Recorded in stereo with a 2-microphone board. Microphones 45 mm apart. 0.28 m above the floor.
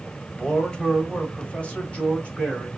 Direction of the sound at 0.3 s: 15° left (ahead or behind).